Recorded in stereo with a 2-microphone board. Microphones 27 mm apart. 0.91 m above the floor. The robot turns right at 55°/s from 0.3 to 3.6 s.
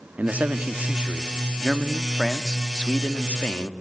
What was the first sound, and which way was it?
A man speaking, 100° right.